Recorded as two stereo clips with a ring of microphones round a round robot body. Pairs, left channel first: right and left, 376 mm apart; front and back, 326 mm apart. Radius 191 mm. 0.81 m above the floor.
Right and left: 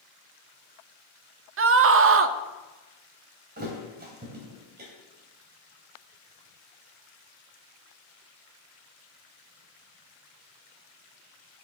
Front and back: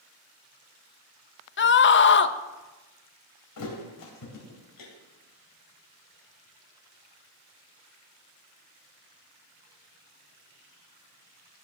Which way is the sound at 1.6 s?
45° left.